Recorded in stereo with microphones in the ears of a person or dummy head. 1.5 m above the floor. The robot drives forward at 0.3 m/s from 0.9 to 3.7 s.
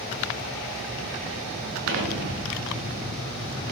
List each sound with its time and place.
1.9 s an explosion: 75° right (ahead or behind), 5.5 m